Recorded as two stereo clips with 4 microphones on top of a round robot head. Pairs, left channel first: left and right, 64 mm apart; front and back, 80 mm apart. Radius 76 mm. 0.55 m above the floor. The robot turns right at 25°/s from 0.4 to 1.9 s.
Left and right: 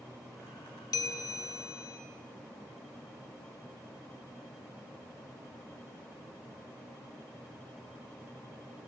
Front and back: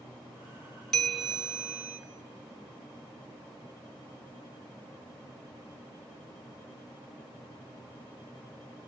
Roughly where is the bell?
Left.